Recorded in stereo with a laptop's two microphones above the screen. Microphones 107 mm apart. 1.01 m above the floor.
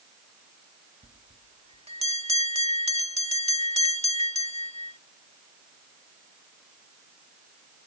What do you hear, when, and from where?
1.0 s a bell: 75° right (ahead or behind)